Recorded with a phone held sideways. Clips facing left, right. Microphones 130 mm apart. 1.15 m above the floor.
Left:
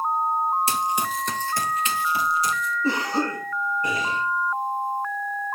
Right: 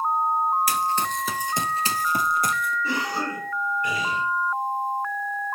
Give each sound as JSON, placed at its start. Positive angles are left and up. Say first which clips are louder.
{"t": 0.7, "sound": "running footsteps", "louder": "even", "side_deg": 25, "distance_m": 1.4}
{"t": 2.8, "sound": "a cough", "louder": "left 3 dB", "side_deg": 40, "distance_m": 6.0}